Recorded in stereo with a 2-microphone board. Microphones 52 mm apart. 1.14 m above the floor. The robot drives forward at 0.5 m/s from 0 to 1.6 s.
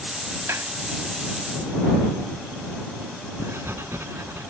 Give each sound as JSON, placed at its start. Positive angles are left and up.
{"t": 0.5, "sound": "a clap", "side_deg": -60}
{"t": 3.4, "sound": "writing", "side_deg": -55}